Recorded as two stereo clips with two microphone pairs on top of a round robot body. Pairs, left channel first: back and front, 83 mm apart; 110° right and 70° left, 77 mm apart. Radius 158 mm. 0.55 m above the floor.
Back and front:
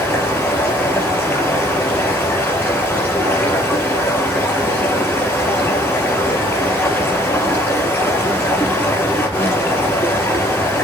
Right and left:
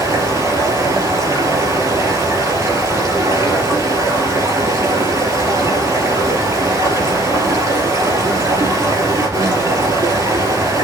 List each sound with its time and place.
0.0 s running water: 115° left, 4 m